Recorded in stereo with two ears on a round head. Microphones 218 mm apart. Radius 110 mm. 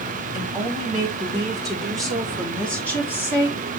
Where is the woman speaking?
5° right (ahead or behind), 4 m; by 3.6 s 15° left (ahead or behind), 2.5 m.